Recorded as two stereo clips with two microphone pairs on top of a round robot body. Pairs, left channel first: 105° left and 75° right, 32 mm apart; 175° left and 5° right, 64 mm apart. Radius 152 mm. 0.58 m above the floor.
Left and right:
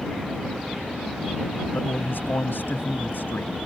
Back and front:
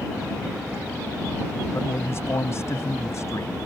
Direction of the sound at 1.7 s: 120° left.